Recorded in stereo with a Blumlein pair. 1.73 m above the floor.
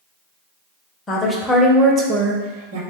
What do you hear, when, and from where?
1.1 s a woman speaking: 20° left, 0.7 m; by 2.8 s 55° right, 0.8 m